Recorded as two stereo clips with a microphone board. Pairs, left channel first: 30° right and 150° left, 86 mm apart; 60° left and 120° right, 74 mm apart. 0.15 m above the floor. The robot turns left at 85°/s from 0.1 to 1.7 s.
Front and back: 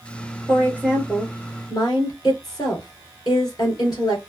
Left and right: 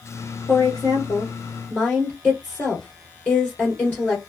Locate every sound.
0.5 s a woman speaking: 105° left, 2.5 m; by 4.3 s straight ahead, 2.5 m